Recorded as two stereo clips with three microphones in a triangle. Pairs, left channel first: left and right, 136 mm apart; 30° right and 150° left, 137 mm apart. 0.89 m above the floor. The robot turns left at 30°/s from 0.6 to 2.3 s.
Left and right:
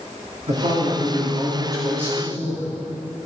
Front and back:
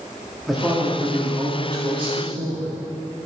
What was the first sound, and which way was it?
A man speaking, 120° right.